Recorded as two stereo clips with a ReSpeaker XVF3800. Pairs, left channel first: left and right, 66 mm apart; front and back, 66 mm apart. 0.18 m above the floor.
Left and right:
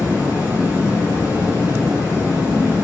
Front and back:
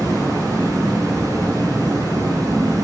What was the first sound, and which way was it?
Running water, 160° right.